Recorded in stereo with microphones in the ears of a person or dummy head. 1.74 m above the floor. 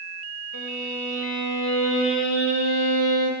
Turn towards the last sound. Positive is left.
turn(degrees=75)  # may be behind; listen again after turning